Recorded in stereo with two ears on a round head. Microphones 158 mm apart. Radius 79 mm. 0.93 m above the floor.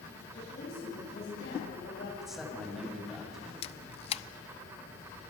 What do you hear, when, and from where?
0.3 s a woman speaking: 60° left (ahead or behind), 6 m
2.2 s a man speaking: centre (ahead or behind), 4.5 m
3.6 s a camera shutter: 35° left (ahead or behind), 0.5 m